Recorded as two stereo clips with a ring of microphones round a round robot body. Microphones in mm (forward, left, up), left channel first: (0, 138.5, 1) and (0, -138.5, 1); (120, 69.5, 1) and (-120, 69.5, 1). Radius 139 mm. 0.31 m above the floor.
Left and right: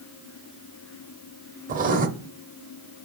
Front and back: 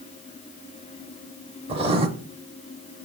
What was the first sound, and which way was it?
Writing, 130° right.